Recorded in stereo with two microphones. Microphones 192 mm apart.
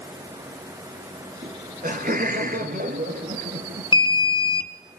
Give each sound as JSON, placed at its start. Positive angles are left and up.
{"t": 1.4, "sound": "laughter", "side_deg": -50, "distance_m": 2.0}
{"t": 3.9, "sound": "an alarm", "side_deg": 25, "distance_m": 0.8}